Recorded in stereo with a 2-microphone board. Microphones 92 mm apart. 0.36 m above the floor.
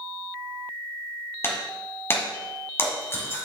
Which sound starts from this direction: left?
Breaking glass, at 1.4 s.